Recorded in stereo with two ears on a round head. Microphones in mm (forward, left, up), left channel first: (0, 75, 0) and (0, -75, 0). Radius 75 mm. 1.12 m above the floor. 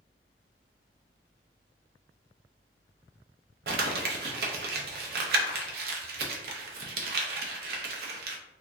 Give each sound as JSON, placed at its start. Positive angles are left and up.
{"t": 3.7, "sound": "crumpling", "side_deg": -65, "distance_m": 0.6}